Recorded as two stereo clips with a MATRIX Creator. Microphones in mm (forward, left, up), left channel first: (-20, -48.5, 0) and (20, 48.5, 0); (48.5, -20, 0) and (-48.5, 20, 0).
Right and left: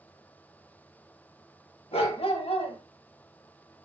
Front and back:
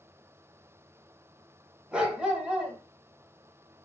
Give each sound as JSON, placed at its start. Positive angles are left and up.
{"t": 1.9, "sound": "a dog barking", "azimuth_deg": -125, "distance_m": 0.5}